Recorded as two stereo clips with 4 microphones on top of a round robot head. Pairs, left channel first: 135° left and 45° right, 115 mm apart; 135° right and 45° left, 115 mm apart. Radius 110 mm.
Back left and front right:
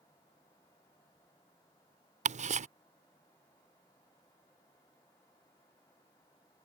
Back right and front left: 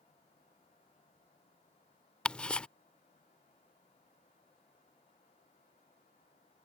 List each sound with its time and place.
2.2 s ticking: 55° right